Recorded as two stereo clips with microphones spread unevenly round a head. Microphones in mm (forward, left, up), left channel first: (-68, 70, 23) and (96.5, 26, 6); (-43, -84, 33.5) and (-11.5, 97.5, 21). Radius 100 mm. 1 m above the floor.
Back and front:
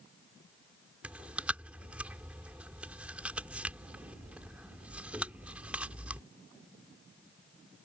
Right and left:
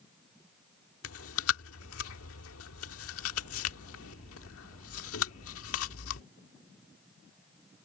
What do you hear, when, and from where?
1.0 s chewing: 100° right